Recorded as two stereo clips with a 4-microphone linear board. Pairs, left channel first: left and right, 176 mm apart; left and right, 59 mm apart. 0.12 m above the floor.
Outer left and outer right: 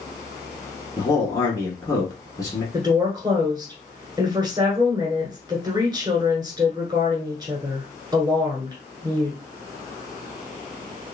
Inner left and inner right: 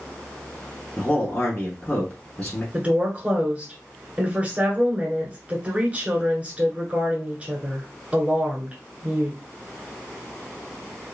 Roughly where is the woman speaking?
Right.